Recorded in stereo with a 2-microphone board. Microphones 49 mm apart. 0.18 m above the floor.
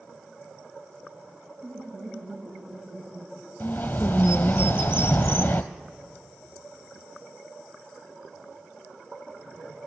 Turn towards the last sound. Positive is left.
turn(degrees=40)  # may be behind; listen again after turning